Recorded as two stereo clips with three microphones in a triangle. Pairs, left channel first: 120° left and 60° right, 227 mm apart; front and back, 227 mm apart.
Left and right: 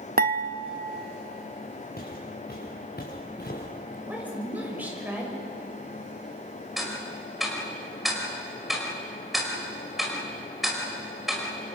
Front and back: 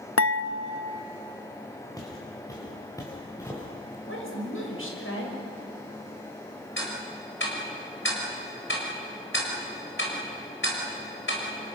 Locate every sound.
0.2 s dishes clattering: 10° right, 1.0 m
2.0 s footsteps: 75° left, 6 m; by 4.0 s 80° left, 4 m
4.1 s a woman speaking: 25° left, 6 m
6.8 s ticking: 30° left, 4.5 m